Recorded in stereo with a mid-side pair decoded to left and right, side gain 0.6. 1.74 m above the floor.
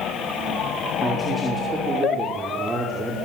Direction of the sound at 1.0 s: 10° right.